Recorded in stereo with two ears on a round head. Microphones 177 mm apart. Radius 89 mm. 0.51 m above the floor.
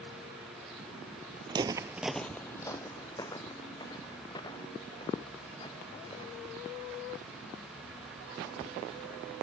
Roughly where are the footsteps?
Right.